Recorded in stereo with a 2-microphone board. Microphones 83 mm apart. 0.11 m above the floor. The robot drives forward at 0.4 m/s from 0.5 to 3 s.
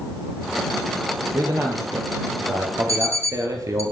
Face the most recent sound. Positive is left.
turn(degrees=-40)  # may be behind; listen again after turning